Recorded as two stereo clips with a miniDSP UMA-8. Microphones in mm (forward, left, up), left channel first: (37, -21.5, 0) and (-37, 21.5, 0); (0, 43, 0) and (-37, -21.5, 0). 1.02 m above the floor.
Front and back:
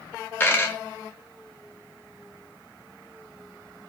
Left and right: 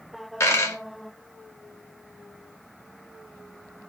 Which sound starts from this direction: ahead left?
A dropped coin, at 0.4 s.